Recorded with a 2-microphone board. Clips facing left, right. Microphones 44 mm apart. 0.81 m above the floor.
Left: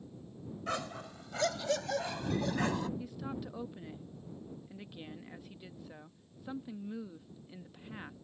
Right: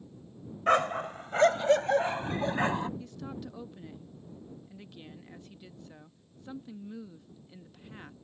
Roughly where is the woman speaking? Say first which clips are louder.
Even; centre.